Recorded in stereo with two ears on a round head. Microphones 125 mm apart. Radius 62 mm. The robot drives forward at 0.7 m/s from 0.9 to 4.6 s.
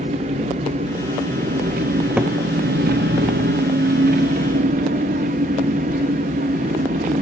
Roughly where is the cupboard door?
Centre.